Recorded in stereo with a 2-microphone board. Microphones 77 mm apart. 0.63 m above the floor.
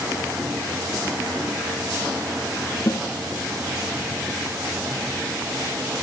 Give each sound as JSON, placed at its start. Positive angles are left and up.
{"t": 2.9, "sound": "a snare drum", "side_deg": 60, "distance_m": 2.5}